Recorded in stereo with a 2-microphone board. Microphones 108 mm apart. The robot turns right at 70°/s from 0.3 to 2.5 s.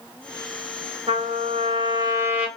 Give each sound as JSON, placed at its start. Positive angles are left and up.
{"t": 1.1, "sound": "a trumpet", "azimuth_deg": -105, "distance_m": 2.0}